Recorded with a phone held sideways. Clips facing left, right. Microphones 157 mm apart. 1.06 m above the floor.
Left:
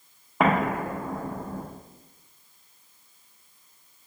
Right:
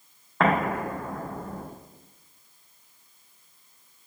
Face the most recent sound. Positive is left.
turn(degrees=15)  # may be behind; listen again after turning